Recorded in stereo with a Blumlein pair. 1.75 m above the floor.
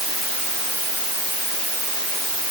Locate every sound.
Only background noise.